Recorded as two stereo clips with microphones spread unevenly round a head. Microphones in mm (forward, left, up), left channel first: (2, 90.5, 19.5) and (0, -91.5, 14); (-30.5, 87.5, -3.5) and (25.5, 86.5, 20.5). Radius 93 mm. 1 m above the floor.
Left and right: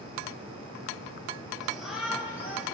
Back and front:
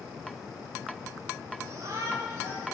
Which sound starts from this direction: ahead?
A shout, at 1.6 s.